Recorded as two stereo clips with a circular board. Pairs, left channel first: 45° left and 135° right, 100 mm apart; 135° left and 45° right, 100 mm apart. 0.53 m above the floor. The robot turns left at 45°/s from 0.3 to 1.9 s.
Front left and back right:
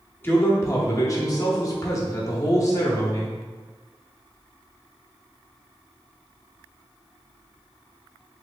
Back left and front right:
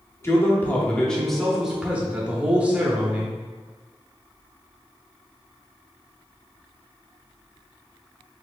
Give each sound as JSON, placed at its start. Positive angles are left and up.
{"t": 0.2, "sound": "a man speaking", "azimuth_deg": 95, "distance_m": 0.7}